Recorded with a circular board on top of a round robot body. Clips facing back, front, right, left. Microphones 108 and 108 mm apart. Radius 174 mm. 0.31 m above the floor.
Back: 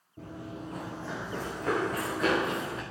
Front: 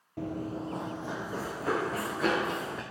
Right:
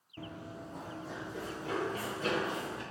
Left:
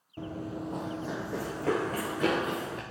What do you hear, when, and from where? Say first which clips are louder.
0.2 s running footsteps: front 6 dB, left 8 dB; 15° left, 0.5 m; by 2.8 s 90° left, 2.5 m